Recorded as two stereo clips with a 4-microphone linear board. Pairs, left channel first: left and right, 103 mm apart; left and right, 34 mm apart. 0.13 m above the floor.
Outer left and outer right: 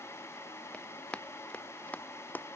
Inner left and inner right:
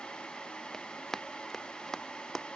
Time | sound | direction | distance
0.7 | running footsteps | 10° left (ahead or behind) | ?